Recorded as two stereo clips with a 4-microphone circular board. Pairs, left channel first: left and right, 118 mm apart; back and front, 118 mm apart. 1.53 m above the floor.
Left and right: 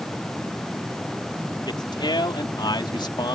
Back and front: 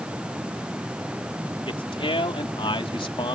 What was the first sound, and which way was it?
A man speaking, 140° left.